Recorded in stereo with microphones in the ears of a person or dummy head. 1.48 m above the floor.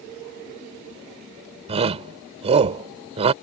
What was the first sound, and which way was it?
A shout, 30° right (ahead or behind).